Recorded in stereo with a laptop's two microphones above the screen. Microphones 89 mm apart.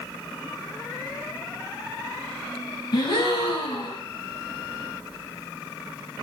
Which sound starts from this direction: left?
A gasp, at 2.9 s.